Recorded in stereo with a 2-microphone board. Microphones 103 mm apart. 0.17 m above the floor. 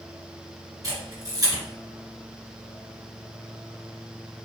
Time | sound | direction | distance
0.8 | a camera shutter | 35° right (ahead or behind) | 1.9 m